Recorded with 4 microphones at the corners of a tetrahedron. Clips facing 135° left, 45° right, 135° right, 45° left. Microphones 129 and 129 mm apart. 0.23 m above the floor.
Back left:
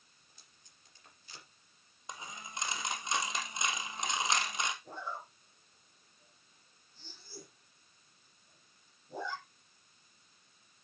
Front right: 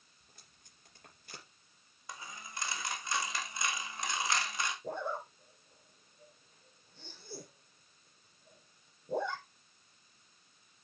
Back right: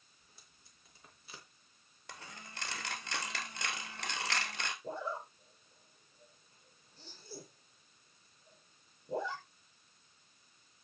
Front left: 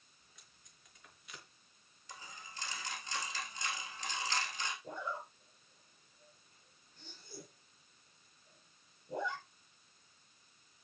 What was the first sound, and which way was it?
Tape being pulled, 80° right.